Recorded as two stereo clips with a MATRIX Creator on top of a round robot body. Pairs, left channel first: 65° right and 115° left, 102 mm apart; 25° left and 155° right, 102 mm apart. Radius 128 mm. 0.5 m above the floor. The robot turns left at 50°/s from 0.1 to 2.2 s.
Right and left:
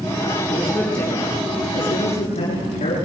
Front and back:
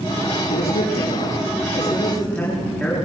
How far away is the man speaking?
About 8 m.